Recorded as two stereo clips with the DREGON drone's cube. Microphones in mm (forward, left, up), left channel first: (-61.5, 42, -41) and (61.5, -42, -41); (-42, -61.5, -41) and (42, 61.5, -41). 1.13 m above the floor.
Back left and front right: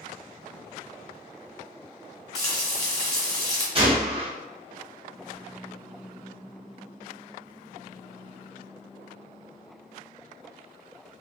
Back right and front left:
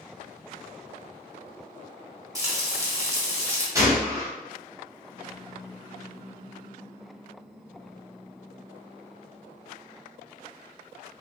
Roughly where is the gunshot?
Ahead.